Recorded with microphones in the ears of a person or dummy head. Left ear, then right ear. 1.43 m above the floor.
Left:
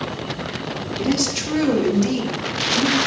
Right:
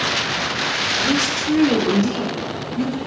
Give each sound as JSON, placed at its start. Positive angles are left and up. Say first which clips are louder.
{"t": 1.0, "sound": "a woman speaking", "louder": "right 3 dB", "side_deg": 55, "distance_m": 2.5}